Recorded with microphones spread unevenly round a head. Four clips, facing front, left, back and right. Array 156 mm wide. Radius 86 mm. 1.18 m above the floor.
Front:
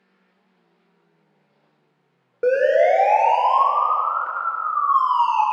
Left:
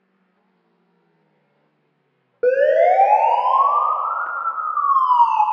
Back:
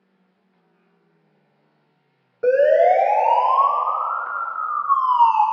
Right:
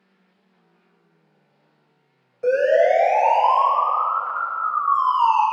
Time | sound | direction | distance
2.4 | a siren | 60° left | 6 m